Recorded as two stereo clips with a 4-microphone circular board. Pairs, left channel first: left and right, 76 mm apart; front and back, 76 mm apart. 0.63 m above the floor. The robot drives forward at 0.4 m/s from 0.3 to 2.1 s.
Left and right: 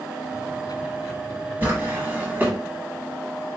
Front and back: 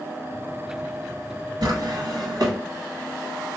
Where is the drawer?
155° right, 1.3 m.